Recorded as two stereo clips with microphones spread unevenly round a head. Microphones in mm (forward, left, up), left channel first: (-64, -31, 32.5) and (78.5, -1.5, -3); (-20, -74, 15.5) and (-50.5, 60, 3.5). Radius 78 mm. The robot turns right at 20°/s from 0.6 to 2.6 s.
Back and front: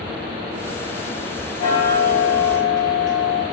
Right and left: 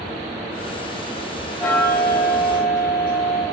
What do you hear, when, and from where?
1.6 s ticking: 150° right, 1.4 m; by 3.4 s 130° right, 1.4 m